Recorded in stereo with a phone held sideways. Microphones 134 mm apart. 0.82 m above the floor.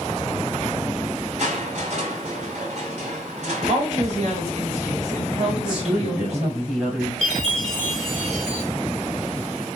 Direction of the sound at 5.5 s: 5° right (ahead or behind).